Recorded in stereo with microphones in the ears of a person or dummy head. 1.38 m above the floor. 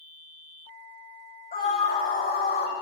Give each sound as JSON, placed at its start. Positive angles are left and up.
{"t": 1.5, "sound": "a scream", "side_deg": 35, "distance_m": 8.0}